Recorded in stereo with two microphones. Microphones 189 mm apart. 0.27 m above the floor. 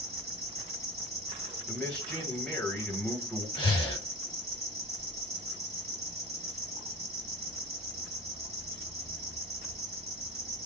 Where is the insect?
35° right (ahead or behind), 0.9 m.